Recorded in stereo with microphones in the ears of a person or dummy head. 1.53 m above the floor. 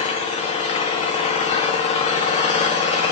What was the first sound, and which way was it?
An engine running, 40° left (ahead or behind).